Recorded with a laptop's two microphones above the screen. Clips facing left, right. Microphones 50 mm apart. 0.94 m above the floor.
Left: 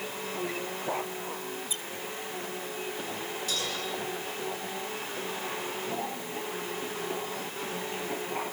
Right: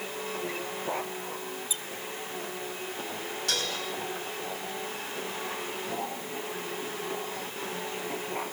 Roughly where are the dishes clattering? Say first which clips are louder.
Right 3 dB; right.